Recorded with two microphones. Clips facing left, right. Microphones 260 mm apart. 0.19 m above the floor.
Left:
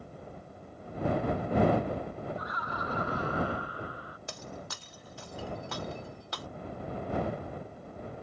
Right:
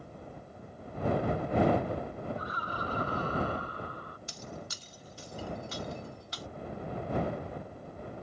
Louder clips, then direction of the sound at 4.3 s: Left 2 dB; 75° left (ahead or behind).